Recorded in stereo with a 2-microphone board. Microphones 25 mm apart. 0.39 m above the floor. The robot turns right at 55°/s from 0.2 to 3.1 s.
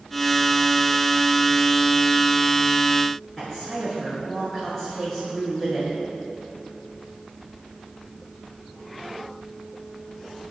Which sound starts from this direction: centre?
A woman speaking, at 3.4 s.